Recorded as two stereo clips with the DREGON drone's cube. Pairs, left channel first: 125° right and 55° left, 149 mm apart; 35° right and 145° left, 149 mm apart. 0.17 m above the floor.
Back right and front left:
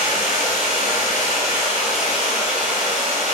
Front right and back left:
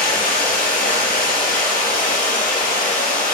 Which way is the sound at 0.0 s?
35° right.